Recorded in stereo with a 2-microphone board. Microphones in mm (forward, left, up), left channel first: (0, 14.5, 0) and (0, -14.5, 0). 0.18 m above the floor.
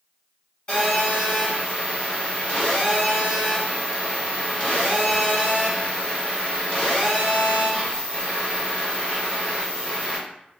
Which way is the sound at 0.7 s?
35° left (ahead or behind).